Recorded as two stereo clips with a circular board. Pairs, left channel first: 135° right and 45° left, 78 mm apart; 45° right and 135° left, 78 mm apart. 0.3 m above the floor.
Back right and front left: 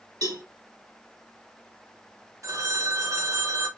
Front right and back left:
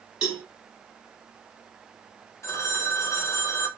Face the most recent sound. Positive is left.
turn(degrees=5)